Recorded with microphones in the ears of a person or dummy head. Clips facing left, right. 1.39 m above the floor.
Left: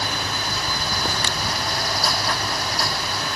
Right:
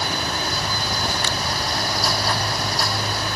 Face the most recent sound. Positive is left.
No sound to turn to.